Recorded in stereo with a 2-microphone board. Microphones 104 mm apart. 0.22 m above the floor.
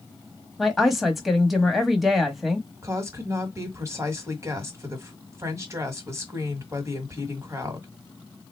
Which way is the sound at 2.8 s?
25° right (ahead or behind).